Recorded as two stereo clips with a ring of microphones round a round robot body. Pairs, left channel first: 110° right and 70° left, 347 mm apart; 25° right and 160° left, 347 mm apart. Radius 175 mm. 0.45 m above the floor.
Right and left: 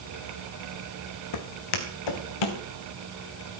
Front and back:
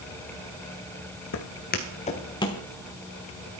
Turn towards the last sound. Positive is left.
turn(degrees=-105)